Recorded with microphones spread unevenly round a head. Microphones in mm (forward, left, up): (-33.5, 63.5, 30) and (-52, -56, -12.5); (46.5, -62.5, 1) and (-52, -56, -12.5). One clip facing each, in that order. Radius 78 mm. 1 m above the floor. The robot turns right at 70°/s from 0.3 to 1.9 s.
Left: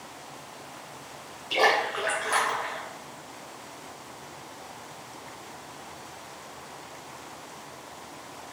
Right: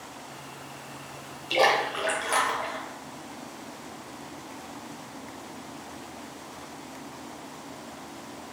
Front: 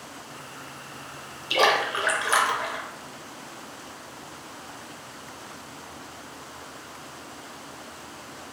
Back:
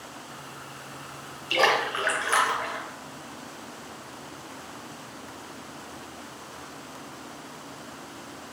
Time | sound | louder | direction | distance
1.5 | a splash | right 1 dB, front 1 dB | 25° right | 0.7 m